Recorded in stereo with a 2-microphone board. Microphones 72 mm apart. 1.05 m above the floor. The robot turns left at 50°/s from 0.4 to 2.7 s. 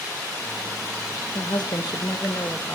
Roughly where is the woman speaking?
Left.